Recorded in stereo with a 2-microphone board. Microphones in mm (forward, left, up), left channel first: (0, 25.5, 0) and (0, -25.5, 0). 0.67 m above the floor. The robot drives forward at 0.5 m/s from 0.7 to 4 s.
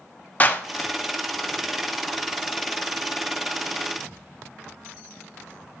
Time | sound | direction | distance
0.4 | a clap | 30° left (ahead or behind) | 0.9 m